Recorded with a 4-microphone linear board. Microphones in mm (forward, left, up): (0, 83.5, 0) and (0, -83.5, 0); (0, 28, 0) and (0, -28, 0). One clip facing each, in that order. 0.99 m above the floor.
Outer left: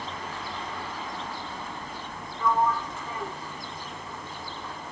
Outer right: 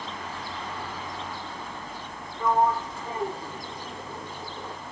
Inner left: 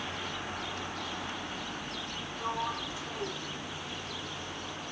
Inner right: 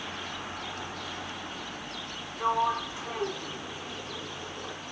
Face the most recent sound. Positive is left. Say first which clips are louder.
# outer right 2 dB, inner right 8 dB
turn(degrees=-30)  # may be behind; listen again after turning